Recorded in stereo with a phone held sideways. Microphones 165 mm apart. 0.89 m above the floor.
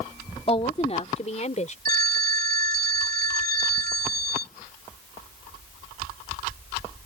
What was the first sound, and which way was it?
A woman speaking, 35° left (ahead or behind).